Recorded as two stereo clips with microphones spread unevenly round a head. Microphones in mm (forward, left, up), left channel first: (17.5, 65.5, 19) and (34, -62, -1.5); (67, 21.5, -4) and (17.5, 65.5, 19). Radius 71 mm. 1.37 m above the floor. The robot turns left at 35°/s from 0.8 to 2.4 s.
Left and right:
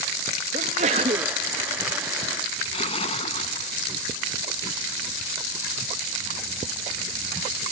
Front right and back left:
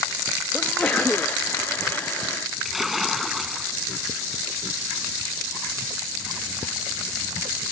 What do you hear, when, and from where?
0.5 s a sneeze: 125° right; by 1.4 s 145° right
2.6 s a splash: 55° left